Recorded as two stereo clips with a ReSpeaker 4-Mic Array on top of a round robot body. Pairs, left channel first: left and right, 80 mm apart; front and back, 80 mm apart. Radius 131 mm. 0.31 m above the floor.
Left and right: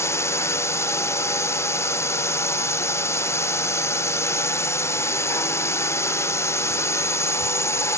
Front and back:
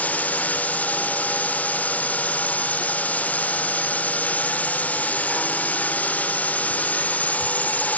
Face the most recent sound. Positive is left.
turn(degrees=60)